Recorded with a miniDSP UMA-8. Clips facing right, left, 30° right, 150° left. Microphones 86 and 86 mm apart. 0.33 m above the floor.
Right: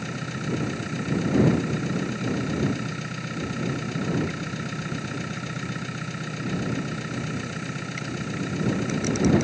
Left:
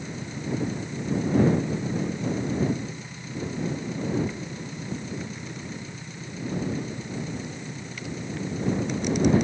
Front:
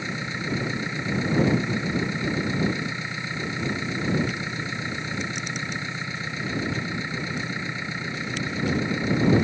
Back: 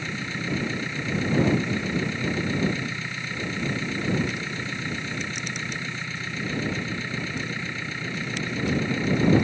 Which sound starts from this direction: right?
An engine running, at 0.0 s.